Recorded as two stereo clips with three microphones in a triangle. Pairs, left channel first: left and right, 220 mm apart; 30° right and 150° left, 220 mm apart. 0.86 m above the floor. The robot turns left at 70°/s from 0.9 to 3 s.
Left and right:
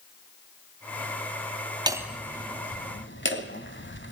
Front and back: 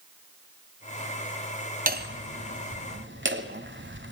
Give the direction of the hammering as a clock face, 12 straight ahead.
5 o'clock.